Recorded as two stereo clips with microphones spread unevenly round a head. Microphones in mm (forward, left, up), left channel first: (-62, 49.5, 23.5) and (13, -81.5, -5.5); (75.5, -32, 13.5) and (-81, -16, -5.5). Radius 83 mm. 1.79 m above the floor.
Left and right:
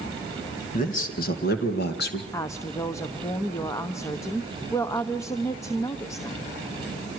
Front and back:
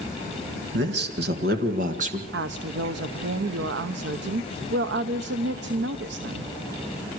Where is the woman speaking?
175° right, 1.0 m.